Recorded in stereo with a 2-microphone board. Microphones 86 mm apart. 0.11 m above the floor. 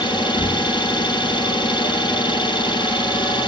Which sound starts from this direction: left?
An engine running, at 0.0 s.